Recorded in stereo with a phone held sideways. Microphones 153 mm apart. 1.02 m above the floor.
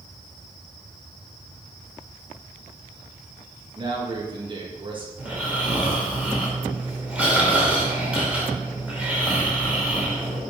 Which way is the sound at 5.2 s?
5° right (ahead or behind).